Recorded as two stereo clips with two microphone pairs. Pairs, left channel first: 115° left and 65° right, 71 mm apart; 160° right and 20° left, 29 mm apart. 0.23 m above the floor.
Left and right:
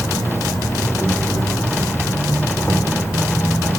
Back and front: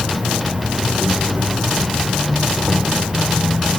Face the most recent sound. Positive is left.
turn(degrees=65)